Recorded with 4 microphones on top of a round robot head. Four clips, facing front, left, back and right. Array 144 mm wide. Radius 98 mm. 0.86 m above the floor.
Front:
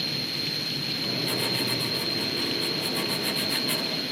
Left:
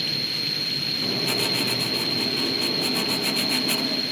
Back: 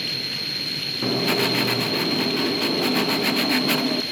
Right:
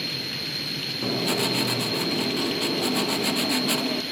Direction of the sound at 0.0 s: 135° left.